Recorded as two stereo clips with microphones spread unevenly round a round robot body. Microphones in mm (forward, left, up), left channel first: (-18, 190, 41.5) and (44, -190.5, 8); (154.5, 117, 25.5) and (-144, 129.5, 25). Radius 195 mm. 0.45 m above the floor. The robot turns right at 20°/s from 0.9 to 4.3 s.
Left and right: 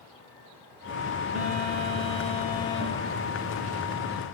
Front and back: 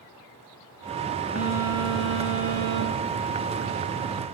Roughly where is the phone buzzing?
Ahead right.